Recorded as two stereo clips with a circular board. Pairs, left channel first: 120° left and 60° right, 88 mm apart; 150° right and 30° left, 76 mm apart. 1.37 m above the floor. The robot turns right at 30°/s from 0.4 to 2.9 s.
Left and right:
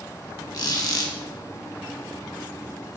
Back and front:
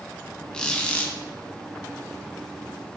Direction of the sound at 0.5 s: 135° left.